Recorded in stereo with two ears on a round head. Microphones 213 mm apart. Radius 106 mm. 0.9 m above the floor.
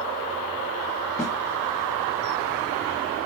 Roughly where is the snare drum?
Centre.